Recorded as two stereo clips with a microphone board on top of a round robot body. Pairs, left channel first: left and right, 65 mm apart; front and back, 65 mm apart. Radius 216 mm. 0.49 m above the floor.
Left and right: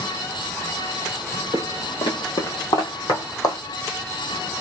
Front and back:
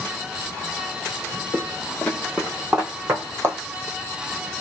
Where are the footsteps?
55° left, 1.3 m; by 3.6 s 125° left, 1.9 m.